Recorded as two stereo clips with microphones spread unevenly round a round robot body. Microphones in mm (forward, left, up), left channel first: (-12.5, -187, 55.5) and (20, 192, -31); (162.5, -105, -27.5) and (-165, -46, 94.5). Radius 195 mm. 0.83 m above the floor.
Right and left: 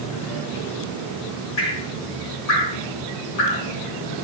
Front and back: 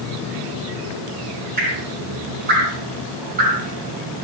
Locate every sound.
1.6 s dripping: 120° right, 3 m